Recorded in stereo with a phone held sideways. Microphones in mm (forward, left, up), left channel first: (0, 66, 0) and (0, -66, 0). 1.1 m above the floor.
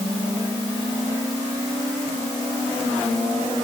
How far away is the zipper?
I don't hear a zipper.